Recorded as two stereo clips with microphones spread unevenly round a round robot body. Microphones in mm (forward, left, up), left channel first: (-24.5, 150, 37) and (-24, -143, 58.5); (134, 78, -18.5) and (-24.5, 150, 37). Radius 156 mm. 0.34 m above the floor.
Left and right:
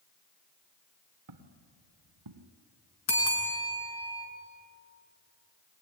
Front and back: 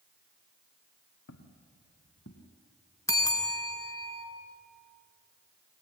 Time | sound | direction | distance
1.3 | footsteps | 50° right | 2.5 m
3.1 | a bell | 45° left | 4.5 m